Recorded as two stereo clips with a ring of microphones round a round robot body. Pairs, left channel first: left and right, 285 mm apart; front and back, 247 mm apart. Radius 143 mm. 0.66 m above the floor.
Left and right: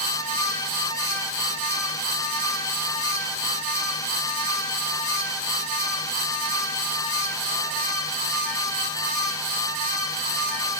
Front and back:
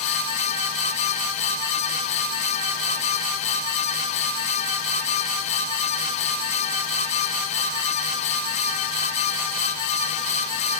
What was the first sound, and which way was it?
Only background noise.